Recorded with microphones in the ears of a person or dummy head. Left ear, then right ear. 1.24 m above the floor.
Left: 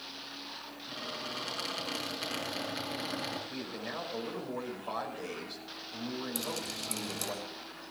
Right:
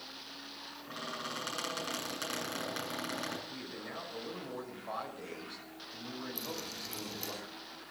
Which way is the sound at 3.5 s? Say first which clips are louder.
Left 4 dB; 5° left (ahead or behind).